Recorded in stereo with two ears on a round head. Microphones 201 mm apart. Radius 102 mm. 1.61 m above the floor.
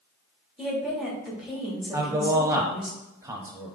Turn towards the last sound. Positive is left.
turn(degrees=-15)  # may be behind; listen again after turning